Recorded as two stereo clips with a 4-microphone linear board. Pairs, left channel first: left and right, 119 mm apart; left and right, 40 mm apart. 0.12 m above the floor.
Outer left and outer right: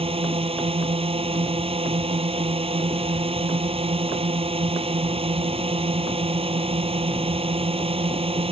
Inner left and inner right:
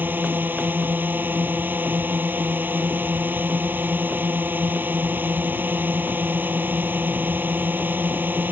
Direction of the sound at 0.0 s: 50° right (ahead or behind).